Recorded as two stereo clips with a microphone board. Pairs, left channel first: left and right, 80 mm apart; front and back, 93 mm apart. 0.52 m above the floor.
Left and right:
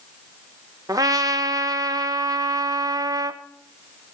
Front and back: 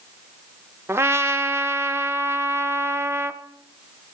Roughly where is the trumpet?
Behind right.